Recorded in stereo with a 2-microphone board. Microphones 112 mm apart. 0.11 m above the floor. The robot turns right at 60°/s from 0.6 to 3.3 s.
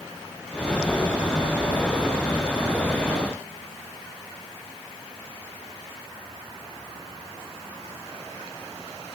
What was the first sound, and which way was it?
Only background noise.